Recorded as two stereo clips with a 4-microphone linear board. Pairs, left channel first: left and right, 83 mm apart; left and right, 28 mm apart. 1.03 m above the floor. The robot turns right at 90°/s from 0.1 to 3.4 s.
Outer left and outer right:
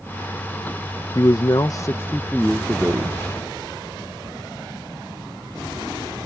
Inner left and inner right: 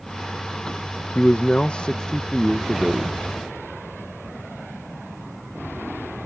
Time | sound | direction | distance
1.1 | a man speaking | 60° left | ?